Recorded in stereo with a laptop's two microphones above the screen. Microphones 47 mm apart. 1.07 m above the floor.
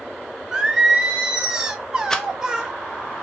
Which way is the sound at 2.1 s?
10° left (ahead or behind).